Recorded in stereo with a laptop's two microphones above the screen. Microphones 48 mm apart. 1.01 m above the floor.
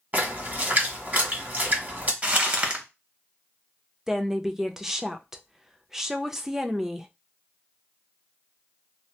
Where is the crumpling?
30° right (ahead or behind), 1.1 m.